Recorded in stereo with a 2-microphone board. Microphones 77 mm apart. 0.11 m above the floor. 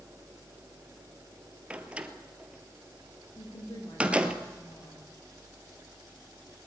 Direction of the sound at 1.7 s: 15° right (ahead or behind).